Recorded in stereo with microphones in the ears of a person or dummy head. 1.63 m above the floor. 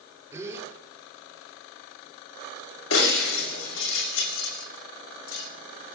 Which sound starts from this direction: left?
Breaking glass, at 2.9 s.